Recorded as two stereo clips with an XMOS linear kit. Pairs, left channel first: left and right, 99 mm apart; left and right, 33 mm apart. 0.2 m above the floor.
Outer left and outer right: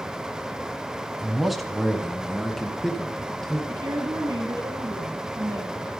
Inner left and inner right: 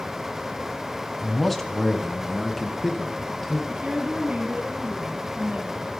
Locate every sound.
1.2 s a man speaking: centre (ahead or behind), 1.2 m; by 3.6 s 5° left (ahead or behind), 2 m
3.7 s a woman speaking: 40° right (ahead or behind), 2 m